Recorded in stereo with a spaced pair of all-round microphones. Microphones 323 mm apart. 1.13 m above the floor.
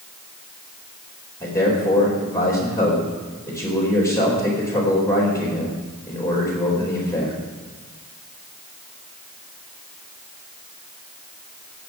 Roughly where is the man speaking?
Centre.